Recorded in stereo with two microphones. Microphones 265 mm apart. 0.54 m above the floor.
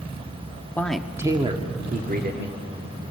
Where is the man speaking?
10° left (ahead or behind), 1.0 m; by 2.5 s 40° right (ahead or behind), 1.8 m.